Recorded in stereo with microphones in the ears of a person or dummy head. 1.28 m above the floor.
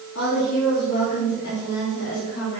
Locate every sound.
0.1 s a woman speaking: 75° left (ahead or behind), 3 m